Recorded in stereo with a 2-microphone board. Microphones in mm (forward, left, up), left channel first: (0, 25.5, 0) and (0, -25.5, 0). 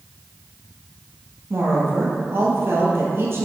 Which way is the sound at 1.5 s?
55° right (ahead or behind).